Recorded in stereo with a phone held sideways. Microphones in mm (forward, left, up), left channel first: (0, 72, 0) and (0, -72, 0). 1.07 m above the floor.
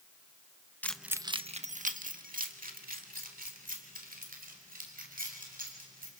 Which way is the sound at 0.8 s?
10° left (ahead or behind).